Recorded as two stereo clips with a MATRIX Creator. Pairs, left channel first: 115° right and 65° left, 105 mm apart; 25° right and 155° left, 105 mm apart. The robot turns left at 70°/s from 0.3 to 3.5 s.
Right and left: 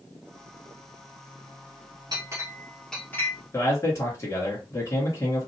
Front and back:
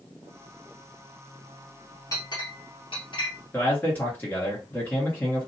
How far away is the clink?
About 1.6 m.